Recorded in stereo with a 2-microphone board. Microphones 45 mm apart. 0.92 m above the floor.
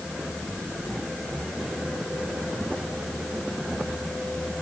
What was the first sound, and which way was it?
Only background noise.